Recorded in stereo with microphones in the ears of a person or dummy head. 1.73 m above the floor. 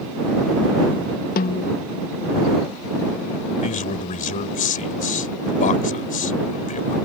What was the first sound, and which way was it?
A snare drum, 45° left (ahead or behind).